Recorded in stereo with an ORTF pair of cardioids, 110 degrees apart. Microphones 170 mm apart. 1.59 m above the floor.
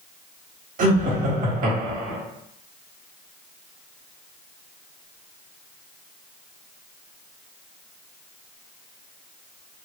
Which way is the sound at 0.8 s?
55° right.